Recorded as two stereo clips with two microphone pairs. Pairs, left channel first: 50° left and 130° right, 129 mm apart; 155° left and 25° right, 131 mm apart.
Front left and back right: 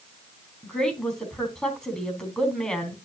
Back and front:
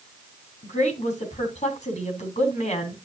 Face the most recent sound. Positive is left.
turn(degrees=135)